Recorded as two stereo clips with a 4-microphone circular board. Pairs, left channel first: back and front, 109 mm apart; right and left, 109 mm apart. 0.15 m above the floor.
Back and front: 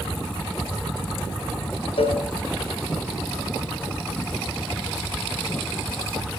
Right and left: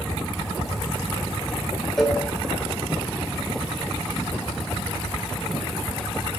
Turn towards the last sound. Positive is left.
turn(degrees=-175)